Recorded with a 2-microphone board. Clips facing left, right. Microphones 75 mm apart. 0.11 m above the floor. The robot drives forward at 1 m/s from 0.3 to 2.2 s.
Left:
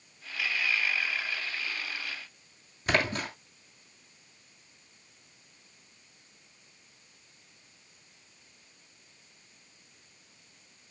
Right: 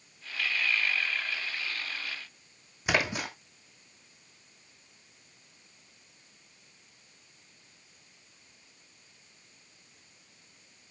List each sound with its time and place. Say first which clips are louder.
2.9 s a splash: left 1 dB; 10° right (ahead or behind), 3 m